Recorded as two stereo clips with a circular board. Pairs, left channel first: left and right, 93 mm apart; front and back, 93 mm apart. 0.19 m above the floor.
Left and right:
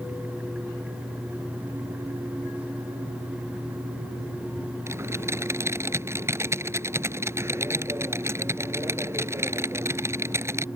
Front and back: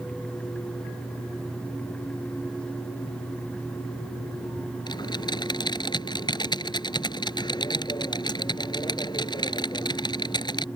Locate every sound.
4.9 s typing on a keyboard: 30° right